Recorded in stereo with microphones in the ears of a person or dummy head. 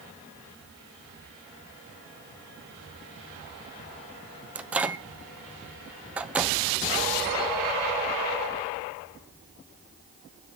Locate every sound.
4.5 s a microwave: 10° right (ahead or behind), 0.5 m